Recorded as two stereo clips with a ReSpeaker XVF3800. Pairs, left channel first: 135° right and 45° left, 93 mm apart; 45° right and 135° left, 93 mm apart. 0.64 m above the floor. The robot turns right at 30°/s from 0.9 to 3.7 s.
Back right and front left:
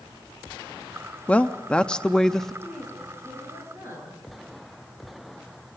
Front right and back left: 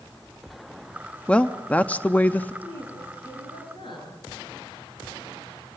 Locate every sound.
1.3 s a woman speaking: 95° right, 0.5 m; by 2.5 s 55° right, 0.5 m
2.6 s a woman speaking: 50° right, 9 m; by 4.2 s 15° right, 9 m